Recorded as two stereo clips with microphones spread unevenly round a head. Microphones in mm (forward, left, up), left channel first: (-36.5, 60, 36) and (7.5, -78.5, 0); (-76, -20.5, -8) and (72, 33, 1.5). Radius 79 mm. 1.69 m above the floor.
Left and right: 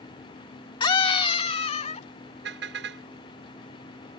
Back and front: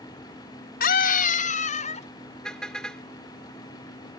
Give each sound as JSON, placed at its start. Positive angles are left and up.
{"t": 0.8, "sound": "a scream", "azimuth_deg": 165}
{"t": 2.4, "sound": "a car horn", "azimuth_deg": -75}